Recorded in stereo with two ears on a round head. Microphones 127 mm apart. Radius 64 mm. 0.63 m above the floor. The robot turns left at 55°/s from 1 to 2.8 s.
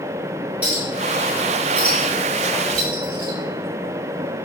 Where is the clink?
10° right (ahead or behind), 2 m; by 3.4 s 70° right (ahead or behind), 2 m.